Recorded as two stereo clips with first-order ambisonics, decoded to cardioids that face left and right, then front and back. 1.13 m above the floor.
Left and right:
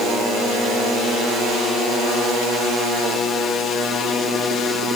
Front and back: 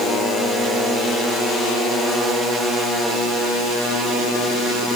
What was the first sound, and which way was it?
Only background noise.